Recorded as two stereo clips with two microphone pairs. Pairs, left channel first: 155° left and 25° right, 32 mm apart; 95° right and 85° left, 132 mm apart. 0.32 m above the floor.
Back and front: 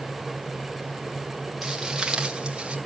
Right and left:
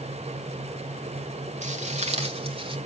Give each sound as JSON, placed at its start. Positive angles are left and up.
{"t": 1.6, "sound": "footsteps", "azimuth_deg": 60, "distance_m": 1.8}